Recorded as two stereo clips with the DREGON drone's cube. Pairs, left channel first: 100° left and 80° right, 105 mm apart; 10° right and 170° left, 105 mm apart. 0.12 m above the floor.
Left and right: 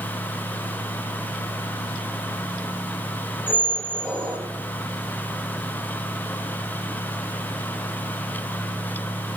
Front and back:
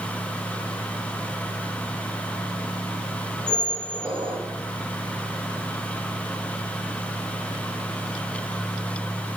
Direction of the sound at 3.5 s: 165° right.